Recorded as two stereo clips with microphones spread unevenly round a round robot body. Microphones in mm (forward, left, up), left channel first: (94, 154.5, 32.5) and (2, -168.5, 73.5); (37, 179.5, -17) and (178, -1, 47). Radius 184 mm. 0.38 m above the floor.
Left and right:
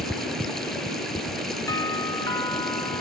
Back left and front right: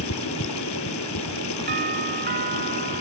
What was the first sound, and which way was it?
Running water, 165° left.